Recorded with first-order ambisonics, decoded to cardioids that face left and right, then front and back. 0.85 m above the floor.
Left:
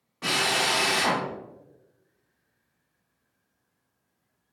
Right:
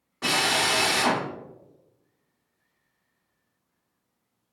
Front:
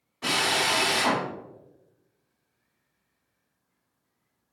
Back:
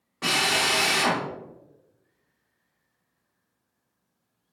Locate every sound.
0.2 s a drill: 165° right, 1.1 m